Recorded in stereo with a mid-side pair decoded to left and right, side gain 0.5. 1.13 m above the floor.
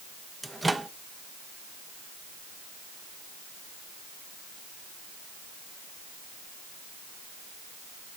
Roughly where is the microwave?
Ahead.